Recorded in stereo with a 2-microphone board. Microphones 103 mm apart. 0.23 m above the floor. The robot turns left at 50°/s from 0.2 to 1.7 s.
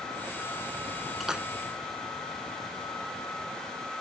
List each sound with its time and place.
1.2 s a splash: centre (ahead or behind); by 1.5 s 15° right (ahead or behind)